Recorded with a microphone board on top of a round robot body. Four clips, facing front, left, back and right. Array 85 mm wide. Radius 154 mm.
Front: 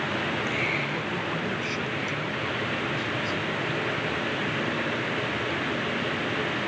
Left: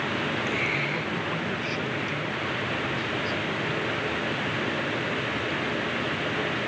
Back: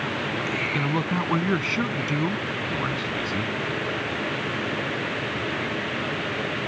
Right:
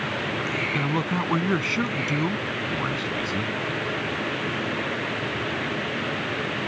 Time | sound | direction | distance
0.7 | a man speaking | 135° right | ?